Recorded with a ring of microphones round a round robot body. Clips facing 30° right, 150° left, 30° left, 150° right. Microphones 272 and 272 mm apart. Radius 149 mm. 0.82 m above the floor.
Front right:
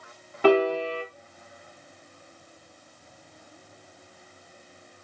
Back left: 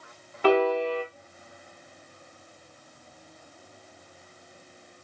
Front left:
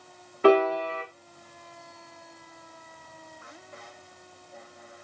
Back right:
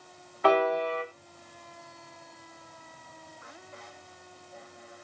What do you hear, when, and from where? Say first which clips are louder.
0.4 s a piano: front right 1 dB, front left 5 dB; 30° right, 0.8 m